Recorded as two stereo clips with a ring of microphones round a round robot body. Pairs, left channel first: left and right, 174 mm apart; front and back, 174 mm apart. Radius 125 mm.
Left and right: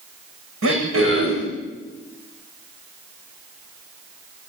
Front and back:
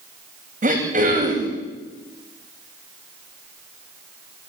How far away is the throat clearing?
About 9.5 m.